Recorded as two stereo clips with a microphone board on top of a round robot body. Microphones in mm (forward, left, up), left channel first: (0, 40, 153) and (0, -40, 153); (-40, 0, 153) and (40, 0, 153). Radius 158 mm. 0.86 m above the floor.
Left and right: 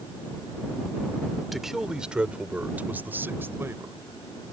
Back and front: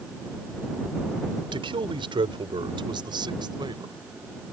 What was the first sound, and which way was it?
A man speaking, straight ahead.